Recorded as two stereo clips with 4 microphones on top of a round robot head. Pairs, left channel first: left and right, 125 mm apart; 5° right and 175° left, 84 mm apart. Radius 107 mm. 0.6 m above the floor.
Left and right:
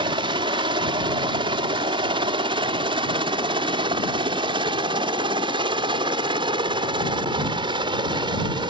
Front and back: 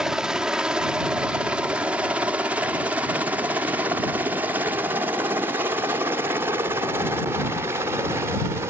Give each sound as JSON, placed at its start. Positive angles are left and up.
{"t": 0.0, "sound": "a helicopter", "azimuth_deg": -105}